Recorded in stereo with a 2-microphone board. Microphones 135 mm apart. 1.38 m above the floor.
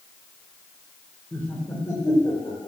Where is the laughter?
15° left (ahead or behind), 1.5 m; by 2.7 s 30° left (ahead or behind), 2 m.